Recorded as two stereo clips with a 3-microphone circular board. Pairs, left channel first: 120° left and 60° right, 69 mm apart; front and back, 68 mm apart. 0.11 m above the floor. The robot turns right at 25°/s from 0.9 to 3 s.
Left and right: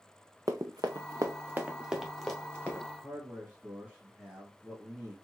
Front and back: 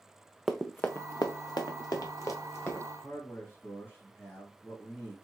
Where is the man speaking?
5° right, 1.8 m.